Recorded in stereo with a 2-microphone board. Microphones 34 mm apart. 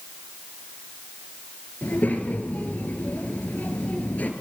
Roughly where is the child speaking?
Left.